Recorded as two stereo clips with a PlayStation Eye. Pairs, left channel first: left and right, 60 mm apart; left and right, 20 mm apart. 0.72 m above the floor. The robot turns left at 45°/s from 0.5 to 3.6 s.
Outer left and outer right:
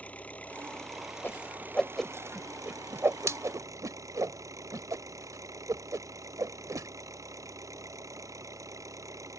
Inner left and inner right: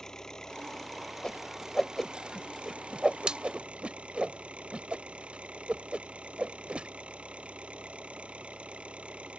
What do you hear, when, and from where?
0.0 s an engine running: 25° left; by 9.4 s 115° right
1.2 s a whoosh: 35° left (ahead or behind); by 6.9 s 70° right (ahead or behind)